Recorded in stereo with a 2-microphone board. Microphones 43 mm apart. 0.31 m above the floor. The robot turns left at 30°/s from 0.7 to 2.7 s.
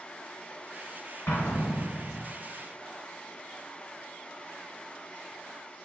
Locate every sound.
1.3 s an explosion: 75° left (ahead or behind), 1.0 m; by 2.2 s 60° left (ahead or behind), 1.0 m